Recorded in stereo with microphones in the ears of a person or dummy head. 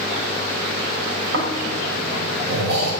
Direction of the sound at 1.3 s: 60° right (ahead or behind).